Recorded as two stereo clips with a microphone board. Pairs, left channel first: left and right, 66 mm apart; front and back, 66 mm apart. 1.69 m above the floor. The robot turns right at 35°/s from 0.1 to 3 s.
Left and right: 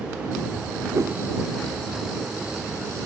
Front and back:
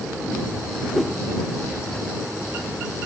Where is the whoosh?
100° right; by 1.2 s 90° right.